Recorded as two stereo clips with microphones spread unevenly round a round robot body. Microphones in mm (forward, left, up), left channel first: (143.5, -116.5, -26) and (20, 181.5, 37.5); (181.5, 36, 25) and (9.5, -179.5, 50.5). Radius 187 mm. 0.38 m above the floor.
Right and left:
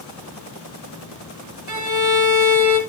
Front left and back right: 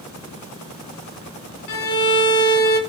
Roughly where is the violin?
Left.